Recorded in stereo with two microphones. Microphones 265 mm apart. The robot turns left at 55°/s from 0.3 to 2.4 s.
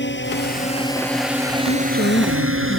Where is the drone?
45° left (ahead or behind); by 2.8 s 50° right (ahead or behind).